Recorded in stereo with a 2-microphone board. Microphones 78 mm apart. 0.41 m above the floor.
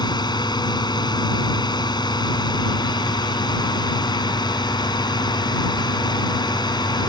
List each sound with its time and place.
0.0 s a drone: 70° left (ahead or behind)